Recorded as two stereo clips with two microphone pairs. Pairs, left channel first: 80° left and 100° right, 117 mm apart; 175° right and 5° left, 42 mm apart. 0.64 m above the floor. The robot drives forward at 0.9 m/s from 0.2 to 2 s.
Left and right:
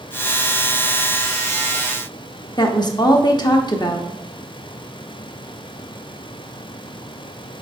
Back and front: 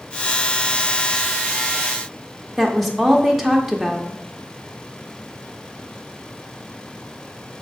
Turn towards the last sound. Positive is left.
turn(degrees=95)